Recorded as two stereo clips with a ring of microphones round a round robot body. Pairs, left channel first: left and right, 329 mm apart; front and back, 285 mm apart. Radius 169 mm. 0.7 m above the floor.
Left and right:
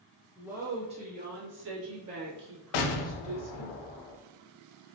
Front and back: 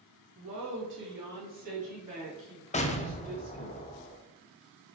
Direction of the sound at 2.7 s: 70° left.